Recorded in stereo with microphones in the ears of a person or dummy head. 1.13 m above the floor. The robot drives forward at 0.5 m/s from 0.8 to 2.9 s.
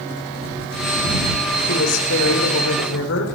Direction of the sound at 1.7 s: 85° left.